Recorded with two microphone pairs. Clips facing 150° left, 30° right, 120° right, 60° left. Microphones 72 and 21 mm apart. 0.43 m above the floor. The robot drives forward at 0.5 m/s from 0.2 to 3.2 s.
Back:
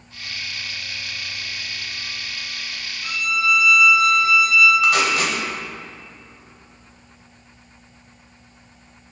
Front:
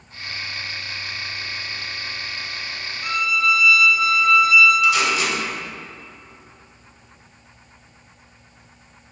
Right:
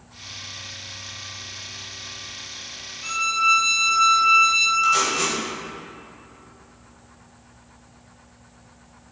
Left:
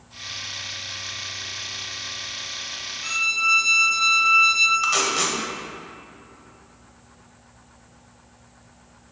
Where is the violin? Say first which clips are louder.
Front 2 dB, right 1 dB; 20° right, 1.0 m; by 4.7 s 25° right, 0.9 m.